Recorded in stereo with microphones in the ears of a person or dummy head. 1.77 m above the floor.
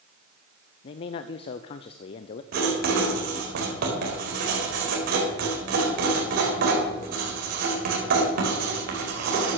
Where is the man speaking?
35° left (ahead or behind), 0.5 m.